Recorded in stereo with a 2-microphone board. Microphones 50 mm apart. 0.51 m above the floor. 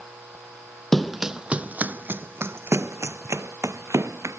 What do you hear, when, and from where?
0.9 s running footsteps: centre (ahead or behind); by 4.4 s 75° right (ahead or behind)